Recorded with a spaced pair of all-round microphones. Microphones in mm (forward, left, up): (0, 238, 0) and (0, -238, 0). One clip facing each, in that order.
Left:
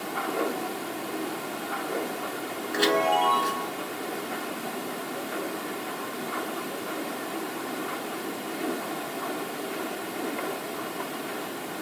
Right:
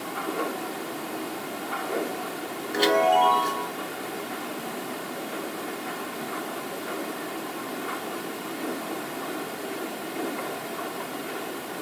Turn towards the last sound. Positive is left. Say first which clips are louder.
# right 3 dB
turn(degrees=25)  # may be behind; listen again after turning